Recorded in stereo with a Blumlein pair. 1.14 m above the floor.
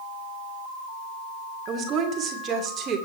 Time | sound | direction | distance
1.7 | a woman speaking | 25° right | 3 m